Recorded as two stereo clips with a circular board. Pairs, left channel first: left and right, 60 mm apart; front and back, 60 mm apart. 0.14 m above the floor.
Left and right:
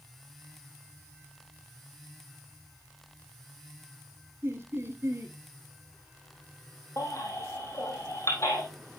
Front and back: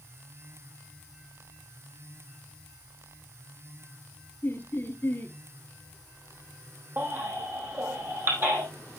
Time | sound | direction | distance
4.4 | laughter | 50° right | 2.5 m
7.0 | a baby crying | 125° left | 4.5 m